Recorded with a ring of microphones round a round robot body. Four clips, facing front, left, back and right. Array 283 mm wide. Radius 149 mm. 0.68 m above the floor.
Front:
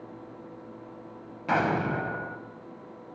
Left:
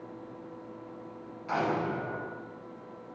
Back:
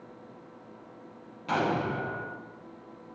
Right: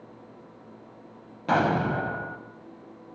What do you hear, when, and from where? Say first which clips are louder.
1.5 s an explosion: right 6 dB, front 2 dB; 75° right, 5.5 m